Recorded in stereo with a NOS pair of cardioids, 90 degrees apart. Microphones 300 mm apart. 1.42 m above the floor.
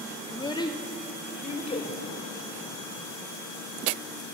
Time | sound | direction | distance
0.3 | a child speaking | 10° left | 1.9 m